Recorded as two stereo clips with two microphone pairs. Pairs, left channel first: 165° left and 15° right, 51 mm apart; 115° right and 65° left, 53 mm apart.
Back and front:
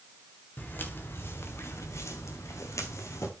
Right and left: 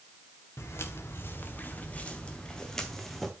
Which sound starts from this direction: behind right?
Footsteps, at 0.6 s.